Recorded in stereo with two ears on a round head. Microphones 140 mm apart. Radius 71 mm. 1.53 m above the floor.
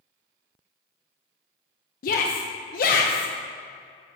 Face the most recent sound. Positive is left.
turn(degrees=60)  # may be behind; listen again after turning